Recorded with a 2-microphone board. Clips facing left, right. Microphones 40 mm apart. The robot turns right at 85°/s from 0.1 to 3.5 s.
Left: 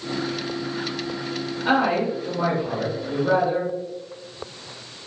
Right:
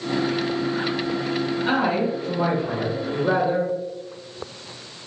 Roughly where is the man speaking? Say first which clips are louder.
Left 3 dB; left.